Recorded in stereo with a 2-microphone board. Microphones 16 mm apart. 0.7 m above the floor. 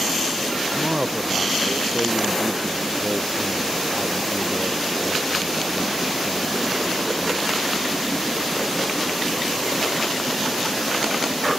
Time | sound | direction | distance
0.8 | a man speaking | 45° right (ahead or behind) | ?